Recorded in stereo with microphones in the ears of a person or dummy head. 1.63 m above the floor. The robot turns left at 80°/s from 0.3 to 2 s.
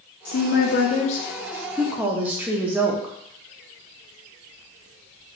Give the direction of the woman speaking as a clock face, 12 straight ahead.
8 o'clock.